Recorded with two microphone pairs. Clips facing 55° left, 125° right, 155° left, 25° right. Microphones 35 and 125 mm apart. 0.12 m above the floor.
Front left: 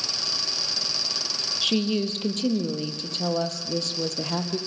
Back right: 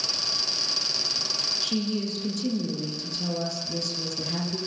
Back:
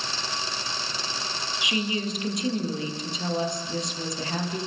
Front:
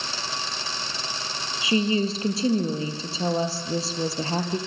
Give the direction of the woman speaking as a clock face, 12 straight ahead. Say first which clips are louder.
Front left 7 dB, front 6 dB; 11 o'clock.